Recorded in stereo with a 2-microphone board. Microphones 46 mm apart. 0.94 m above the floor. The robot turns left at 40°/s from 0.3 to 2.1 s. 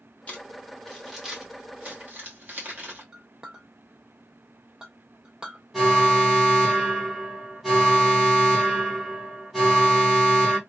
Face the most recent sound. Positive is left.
turn(degrees=-10)  # may be behind; listen again after turning